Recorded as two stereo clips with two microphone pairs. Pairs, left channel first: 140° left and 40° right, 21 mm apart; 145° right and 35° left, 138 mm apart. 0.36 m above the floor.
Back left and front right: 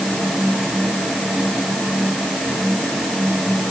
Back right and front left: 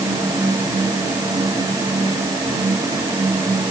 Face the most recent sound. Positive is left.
No sound to turn to.